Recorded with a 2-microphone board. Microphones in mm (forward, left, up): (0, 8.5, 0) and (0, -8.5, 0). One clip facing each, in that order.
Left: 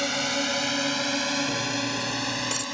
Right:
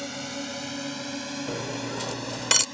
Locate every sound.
0.0 s a drone: 35° left (ahead or behind); by 2.8 s 30° left (ahead or behind)
1.5 s cutlery clinking: 50° right (ahead or behind)